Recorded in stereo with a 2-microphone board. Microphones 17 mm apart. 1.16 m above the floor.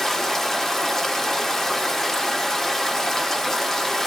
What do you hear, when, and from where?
0.0 s running water: 25° left (ahead or behind), 0.7 m